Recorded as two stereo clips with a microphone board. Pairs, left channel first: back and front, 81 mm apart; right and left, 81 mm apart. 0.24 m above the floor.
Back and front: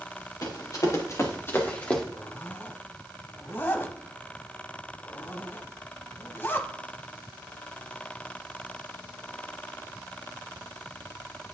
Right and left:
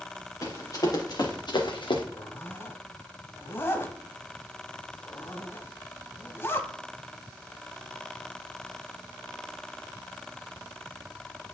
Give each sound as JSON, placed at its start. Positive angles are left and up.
{"t": 0.4, "sound": "running footsteps", "azimuth_deg": -140, "distance_m": 2.5}
{"t": 2.1, "sound": "a zipper", "azimuth_deg": -130, "distance_m": 0.7}